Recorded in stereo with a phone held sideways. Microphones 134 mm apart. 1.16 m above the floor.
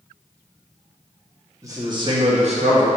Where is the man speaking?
25° right (ahead or behind), 1.1 m; by 2.9 s 65° right (ahead or behind), 1.2 m.